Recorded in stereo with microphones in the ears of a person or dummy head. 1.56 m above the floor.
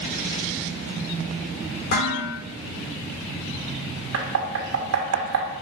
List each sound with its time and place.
1.9 s dishes clattering: 60° left (ahead or behind), 3 m
4.1 s knocking: 80° right, 1.3 m